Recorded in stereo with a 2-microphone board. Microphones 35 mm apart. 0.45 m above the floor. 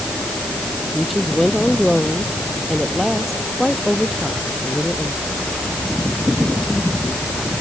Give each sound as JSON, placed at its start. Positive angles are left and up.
{"t": 0.9, "sound": "a woman speaking", "side_deg": 5}